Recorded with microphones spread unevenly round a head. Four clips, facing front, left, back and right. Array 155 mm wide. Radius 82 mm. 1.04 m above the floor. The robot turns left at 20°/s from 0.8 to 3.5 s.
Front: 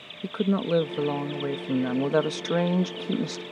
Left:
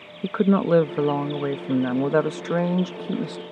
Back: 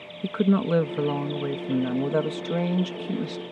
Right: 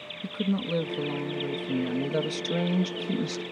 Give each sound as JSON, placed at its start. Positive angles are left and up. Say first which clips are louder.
{"t": 0.2, "sound": "a woman speaking", "louder": "left 10 dB, back 3 dB", "azimuth_deg": 95}